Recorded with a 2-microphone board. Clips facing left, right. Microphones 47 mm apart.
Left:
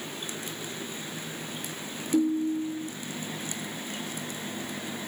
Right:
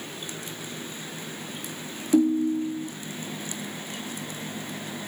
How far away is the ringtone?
About 1.7 m.